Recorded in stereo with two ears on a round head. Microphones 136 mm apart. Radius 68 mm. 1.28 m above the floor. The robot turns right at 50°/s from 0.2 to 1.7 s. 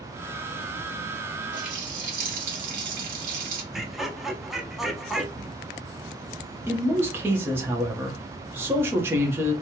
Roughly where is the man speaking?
Centre.